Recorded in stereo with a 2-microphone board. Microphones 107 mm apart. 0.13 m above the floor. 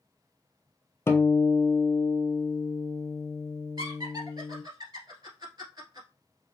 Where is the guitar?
25° left (ahead or behind), 0.7 m.